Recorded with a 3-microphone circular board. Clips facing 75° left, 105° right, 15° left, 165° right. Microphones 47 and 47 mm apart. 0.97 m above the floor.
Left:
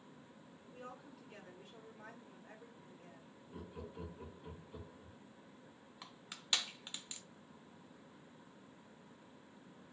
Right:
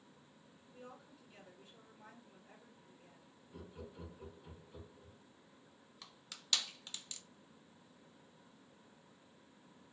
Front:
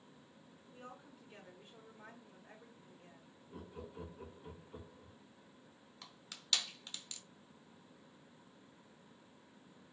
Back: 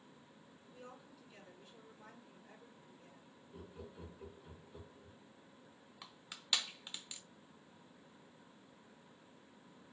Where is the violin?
I don't hear a violin.